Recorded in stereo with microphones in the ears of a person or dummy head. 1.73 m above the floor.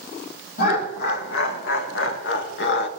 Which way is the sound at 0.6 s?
60° left (ahead or behind).